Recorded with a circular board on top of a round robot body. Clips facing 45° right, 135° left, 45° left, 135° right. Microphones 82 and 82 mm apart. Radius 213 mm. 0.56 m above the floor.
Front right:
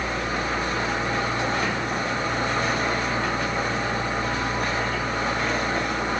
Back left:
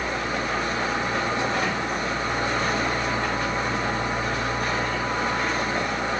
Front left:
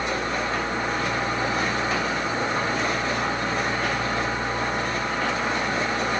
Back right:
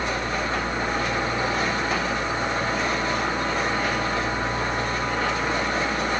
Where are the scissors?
No scissors in this recording.